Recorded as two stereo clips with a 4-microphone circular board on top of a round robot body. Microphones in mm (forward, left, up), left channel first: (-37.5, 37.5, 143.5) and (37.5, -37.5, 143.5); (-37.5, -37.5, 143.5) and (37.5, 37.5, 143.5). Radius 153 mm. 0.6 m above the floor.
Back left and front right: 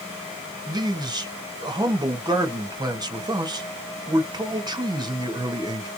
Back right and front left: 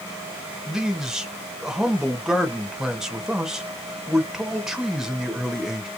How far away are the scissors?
No scissors in this recording.